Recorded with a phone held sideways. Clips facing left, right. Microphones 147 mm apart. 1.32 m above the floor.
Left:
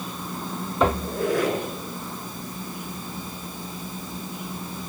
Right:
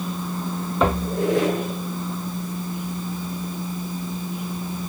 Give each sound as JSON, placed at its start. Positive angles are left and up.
{"t": 0.9, "sound": "a squeak", "side_deg": -20, "distance_m": 8.0}